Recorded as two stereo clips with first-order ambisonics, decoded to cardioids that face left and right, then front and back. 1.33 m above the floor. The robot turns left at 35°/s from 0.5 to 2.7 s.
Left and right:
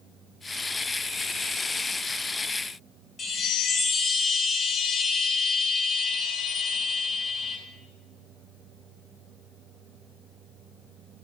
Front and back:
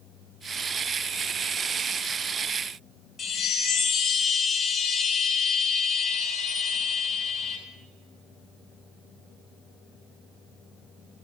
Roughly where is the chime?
Ahead left.